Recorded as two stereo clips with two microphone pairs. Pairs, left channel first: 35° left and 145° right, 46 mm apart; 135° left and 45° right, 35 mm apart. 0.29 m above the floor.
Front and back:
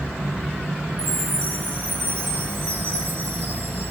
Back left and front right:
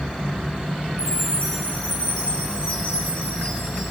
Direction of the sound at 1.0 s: 175° right.